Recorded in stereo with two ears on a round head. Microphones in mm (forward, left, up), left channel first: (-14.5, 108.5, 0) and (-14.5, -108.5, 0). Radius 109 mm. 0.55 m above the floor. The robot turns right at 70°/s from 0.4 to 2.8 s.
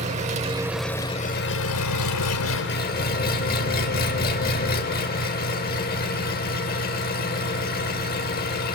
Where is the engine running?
30° right, 0.9 m; by 8.8 s 140° left, 0.9 m.